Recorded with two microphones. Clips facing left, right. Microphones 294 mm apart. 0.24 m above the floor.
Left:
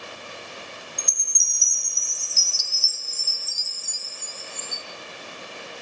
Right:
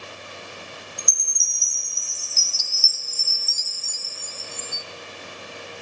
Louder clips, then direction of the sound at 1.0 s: Even; 30° left (ahead or behind).